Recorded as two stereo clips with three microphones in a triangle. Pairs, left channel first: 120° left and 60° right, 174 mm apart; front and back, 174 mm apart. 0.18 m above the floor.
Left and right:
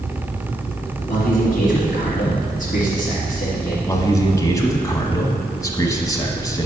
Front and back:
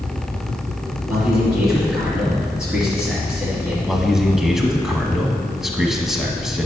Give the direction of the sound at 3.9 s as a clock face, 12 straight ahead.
9 o'clock.